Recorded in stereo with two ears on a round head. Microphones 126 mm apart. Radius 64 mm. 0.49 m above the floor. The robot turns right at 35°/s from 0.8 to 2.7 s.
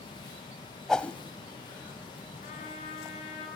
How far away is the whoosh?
About 0.6 m.